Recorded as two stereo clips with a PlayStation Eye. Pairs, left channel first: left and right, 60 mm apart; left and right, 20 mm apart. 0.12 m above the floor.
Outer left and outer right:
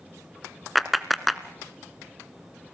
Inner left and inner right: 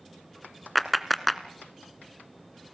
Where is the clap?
Centre (ahead or behind), 0.8 m.